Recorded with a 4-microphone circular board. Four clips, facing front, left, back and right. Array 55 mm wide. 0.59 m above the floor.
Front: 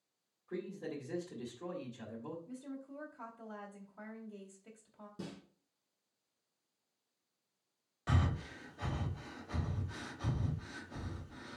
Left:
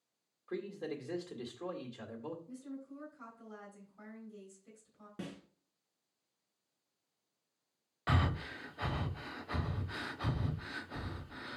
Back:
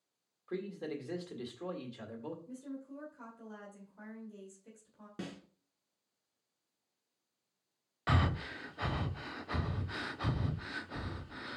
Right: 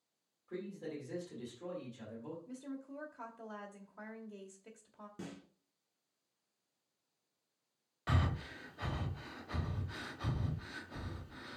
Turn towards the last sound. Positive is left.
turn(degrees=155)